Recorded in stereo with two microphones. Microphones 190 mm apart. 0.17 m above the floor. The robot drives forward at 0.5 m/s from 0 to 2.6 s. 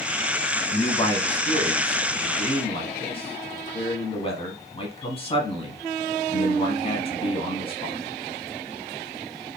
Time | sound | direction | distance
0.7 | a man speaking | 25° left (ahead or behind) | 1.4 m